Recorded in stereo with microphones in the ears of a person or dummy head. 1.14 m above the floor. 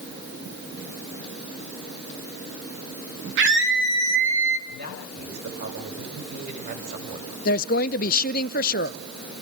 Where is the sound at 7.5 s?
50° left (ahead or behind), 0.7 m.